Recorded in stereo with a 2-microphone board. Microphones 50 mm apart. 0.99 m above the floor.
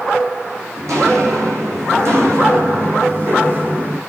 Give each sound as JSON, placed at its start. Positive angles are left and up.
{"t": 0.8, "sound": "footsteps", "side_deg": -75, "distance_m": 4.0}